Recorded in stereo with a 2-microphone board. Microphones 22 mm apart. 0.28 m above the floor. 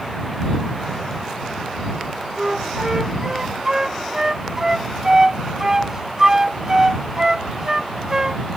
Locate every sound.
2.4 s a flute: 25° right (ahead or behind)